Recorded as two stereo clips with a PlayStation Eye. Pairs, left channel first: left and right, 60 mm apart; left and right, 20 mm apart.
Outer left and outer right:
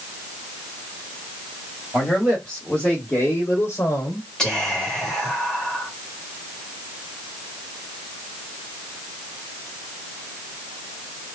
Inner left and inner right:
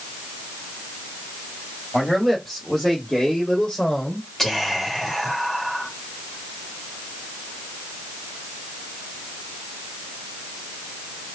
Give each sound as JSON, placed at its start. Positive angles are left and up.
{"t": 1.9, "sound": "a man speaking", "side_deg": 10, "distance_m": 2.0}
{"t": 4.4, "sound": "whispering", "side_deg": 15, "distance_m": 2.0}